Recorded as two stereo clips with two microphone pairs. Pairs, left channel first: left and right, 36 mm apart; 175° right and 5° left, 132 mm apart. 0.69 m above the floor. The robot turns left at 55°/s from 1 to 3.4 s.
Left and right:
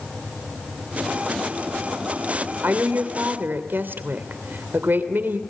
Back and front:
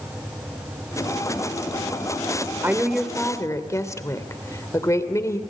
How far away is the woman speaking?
About 2.5 m.